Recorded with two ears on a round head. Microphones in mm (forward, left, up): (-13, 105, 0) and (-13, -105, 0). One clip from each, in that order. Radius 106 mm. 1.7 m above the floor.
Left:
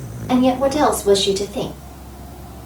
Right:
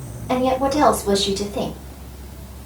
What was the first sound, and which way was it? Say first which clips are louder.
A woman speaking: left 2 dB; 55° left (ahead or behind).